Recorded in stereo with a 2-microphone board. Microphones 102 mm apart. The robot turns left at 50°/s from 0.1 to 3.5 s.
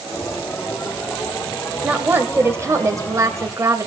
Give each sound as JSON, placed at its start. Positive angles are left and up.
{"t": 1.8, "sound": "a woman speaking", "azimuth_deg": -25, "distance_m": 1.5}